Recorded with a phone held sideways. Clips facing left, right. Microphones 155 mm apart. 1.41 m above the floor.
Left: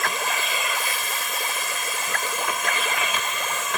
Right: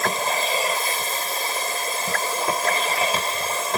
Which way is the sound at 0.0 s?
35° right (ahead or behind).